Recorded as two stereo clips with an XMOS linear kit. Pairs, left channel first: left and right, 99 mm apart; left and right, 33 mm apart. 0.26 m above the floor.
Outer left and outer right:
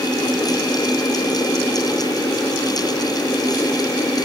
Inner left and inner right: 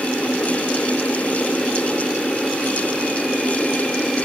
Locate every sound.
Only background noise.